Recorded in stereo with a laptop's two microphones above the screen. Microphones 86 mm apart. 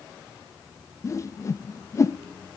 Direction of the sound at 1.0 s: 35° left (ahead or behind).